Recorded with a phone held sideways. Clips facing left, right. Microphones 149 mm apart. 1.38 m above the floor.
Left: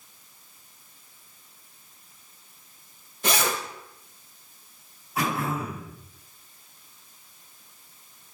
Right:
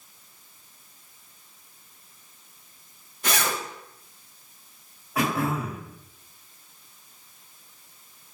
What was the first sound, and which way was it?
A zipper, 25° left (ahead or behind).